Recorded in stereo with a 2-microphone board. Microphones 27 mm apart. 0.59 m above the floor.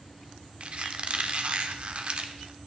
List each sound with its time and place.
0.6 s a squeak: 50° right (ahead or behind), 0.7 m